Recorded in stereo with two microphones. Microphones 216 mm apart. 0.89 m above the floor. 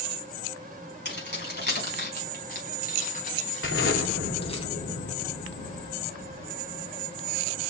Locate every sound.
1.1 s keys jangling: 55° left (ahead or behind), 5 m; by 4.6 s 25° left (ahead or behind), 4 m
3.6 s an explosion: 75° left (ahead or behind), 3 m